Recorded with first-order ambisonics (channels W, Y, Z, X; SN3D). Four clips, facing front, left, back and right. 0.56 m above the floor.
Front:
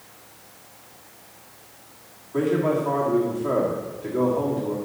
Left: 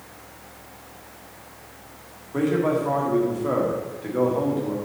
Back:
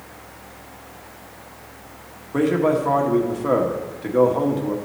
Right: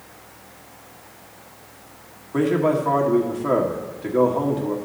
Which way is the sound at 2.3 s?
155° right.